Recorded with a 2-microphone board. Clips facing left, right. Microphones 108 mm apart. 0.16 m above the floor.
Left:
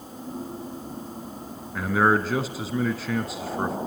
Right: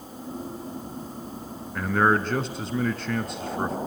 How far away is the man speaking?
About 1.3 m.